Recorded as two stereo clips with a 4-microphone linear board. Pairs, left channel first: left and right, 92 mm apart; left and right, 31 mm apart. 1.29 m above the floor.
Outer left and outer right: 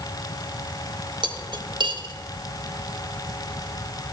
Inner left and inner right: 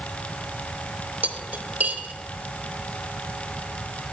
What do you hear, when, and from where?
1.2 s cutlery clinking: 55° right (ahead or behind), 0.9 m